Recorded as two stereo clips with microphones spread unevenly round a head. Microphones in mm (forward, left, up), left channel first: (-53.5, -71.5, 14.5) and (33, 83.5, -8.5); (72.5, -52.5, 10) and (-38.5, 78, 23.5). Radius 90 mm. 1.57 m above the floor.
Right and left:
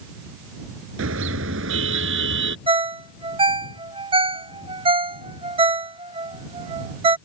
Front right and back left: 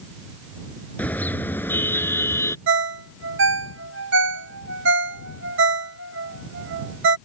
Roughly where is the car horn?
Ahead left.